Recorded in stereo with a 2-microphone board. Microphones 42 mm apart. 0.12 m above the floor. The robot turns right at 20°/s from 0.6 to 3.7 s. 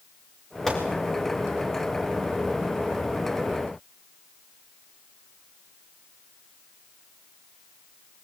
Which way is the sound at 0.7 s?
5° left (ahead or behind).